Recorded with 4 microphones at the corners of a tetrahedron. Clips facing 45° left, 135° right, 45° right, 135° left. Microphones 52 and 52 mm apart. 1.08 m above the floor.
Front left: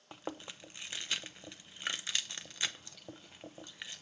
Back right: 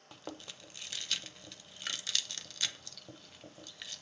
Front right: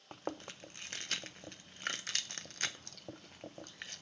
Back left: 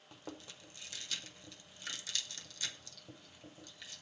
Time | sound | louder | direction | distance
0.1 | chewing | front left 3 dB, front right 7 dB | 20° right | 0.5 m